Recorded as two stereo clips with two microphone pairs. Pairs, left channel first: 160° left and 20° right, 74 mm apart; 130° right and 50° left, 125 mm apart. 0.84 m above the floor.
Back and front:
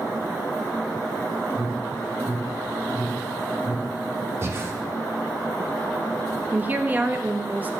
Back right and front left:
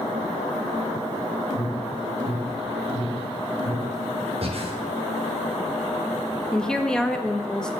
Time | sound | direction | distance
1.5 | an alarm | 130° right | 1.7 m
4.4 | breathing | 30° left | 1.2 m
6.5 | a woman speaking | 55° right | 0.7 m